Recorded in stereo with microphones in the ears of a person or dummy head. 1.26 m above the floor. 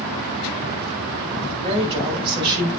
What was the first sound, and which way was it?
A woman speaking, 35° right (ahead or behind).